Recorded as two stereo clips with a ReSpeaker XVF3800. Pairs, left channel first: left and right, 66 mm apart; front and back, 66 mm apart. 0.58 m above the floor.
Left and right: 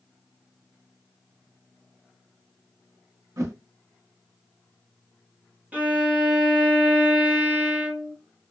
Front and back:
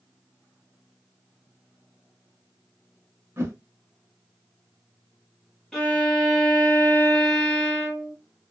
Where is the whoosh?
125° right, 0.9 m.